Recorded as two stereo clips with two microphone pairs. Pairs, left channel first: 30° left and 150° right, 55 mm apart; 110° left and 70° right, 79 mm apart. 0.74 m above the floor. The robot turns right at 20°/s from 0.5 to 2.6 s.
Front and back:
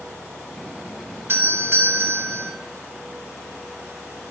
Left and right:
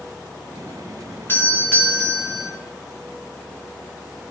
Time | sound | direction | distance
1.3 | a doorbell | 170° left | 2.0 m